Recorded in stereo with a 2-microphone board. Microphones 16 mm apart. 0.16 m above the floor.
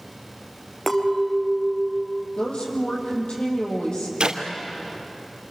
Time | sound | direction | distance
0.9 | a clink | 15° left (ahead or behind) | 2 m
2.4 | a woman speaking | 65° left (ahead or behind) | 6.5 m
4.2 | a clap | 65° right (ahead or behind) | 2.5 m